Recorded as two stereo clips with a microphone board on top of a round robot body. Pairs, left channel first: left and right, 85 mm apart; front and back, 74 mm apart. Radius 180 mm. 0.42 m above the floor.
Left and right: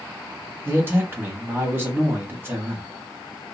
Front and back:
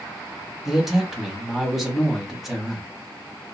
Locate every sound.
0.7 s a man speaking: 100° right, 1.5 m